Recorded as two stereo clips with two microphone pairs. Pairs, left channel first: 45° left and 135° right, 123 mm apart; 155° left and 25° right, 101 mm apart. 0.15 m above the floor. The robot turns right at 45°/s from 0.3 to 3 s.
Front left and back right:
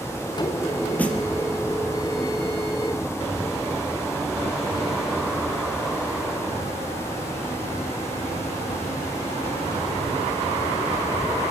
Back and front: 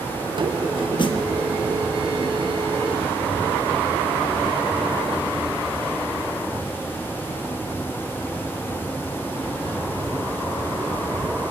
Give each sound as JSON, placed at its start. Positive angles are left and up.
{"t": 1.0, "sound": "a snare drum", "azimuth_deg": 120, "distance_m": 4.0}